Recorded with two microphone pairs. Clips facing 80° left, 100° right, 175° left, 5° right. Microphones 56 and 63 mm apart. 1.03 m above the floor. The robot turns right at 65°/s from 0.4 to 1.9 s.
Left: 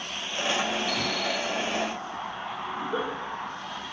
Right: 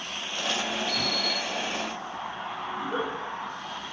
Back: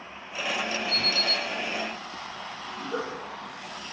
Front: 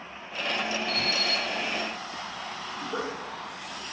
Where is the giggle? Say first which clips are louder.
Even, back 1 dB; 150° right, 1.2 m.